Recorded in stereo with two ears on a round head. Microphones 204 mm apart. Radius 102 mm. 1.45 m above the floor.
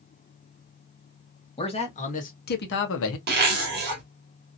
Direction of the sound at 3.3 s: 45° right (ahead or behind).